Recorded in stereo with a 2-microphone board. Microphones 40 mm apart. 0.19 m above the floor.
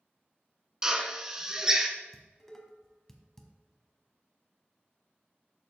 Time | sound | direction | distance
0.8 | a drill | 15° right (ahead or behind) | 1.0 m
2.1 | dishes clattering | 10° left (ahead or behind) | 0.8 m